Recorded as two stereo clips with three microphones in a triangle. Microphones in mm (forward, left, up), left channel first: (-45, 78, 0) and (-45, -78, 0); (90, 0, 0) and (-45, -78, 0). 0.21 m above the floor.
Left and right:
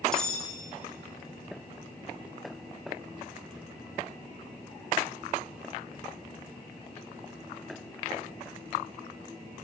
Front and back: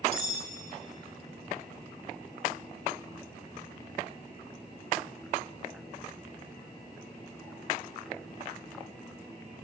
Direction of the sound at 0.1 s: 175° left.